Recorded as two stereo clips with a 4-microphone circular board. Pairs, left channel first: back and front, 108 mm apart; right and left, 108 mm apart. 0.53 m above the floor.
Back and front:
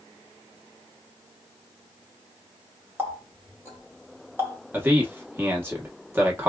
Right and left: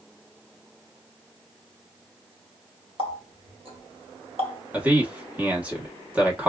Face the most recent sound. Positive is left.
turn(degrees=35)